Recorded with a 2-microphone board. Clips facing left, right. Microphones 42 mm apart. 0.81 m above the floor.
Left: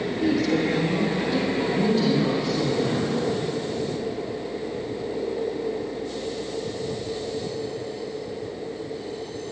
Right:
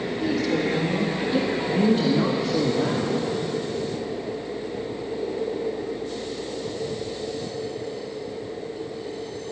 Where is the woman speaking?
5° left (ahead or behind), 1.7 m; by 3.4 s 65° right (ahead or behind), 2.5 m.